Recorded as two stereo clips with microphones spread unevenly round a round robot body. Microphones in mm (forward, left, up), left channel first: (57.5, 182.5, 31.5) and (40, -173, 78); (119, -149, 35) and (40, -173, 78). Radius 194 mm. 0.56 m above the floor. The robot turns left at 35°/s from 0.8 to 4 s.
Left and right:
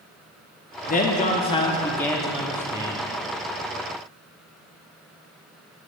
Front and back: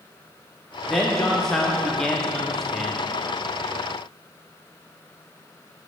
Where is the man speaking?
60° left, 0.9 m; by 3.0 s 15° right, 0.9 m.